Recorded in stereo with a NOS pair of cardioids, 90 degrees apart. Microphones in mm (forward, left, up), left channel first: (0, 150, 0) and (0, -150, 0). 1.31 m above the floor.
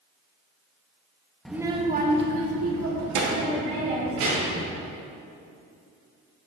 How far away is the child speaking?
About 1.1 m.